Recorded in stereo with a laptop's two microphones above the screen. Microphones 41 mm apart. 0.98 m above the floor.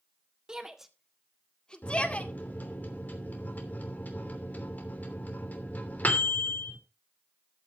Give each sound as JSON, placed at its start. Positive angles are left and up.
{"t": 0.5, "sound": "a shout", "side_deg": -20, "distance_m": 1.8}
{"t": 1.8, "sound": "a microwave", "side_deg": 40, "distance_m": 2.5}